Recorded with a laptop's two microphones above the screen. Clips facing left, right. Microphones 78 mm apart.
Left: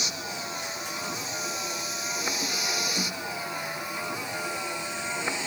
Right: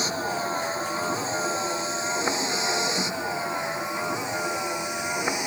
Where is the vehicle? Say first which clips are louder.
Right 8 dB; 35° right (ahead or behind); by 5.5 s 15° right (ahead or behind).